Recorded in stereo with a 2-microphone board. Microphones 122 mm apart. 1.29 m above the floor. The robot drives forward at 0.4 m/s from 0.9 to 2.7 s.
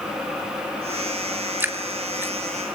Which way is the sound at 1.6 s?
15° right (ahead or behind).